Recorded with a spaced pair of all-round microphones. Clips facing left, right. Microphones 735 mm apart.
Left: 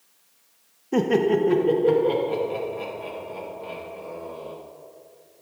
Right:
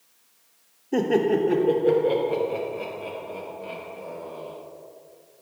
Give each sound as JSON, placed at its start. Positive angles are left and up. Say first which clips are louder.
{"t": 0.9, "sound": "laughter", "louder": "left 1 dB", "side_deg": 45, "distance_m": 0.6}